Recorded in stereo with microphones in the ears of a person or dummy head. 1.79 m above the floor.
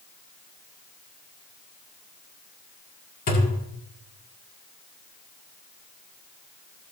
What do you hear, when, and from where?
3.3 s a thud: 50° left (ahead or behind), 1.8 m